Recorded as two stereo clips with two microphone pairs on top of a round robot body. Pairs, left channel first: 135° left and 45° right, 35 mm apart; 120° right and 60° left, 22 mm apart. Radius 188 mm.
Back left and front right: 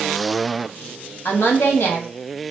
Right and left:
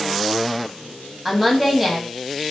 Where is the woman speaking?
140° left, 1.4 m.